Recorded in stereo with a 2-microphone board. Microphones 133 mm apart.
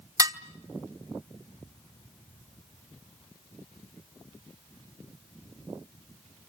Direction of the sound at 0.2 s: 25° right (ahead or behind).